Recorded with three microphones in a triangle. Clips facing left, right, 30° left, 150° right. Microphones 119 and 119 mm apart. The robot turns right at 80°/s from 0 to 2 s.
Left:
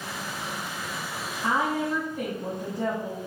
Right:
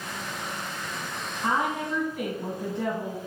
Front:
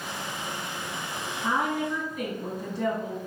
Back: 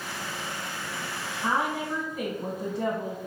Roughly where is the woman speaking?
Behind right.